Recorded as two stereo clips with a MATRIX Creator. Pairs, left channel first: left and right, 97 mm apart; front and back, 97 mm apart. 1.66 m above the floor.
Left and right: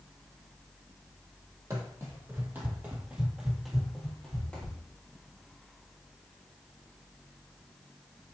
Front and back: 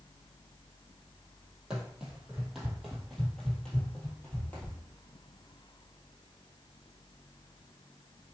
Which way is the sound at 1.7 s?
105° right.